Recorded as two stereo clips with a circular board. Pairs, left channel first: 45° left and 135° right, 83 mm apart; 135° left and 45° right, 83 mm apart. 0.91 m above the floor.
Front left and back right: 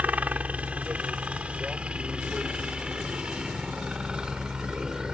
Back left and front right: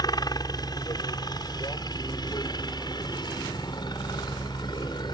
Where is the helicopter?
155° left; by 5.1 s 145° left.